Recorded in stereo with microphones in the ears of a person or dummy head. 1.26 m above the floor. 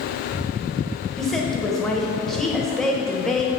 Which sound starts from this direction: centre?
A woman speaking, at 1.2 s.